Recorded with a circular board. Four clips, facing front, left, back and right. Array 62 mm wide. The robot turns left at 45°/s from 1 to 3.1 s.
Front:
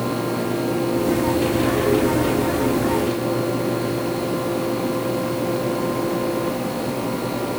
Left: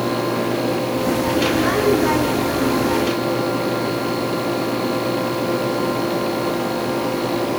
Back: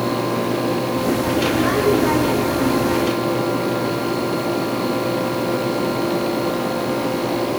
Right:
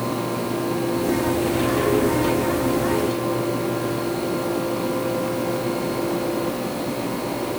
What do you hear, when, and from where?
Only background noise.